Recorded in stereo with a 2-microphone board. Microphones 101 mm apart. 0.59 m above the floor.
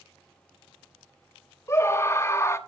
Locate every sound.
1.7 s a scream: 25° left (ahead or behind), 0.7 m